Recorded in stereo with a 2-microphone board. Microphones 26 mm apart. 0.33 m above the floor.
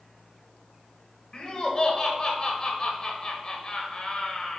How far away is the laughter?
About 1.1 m.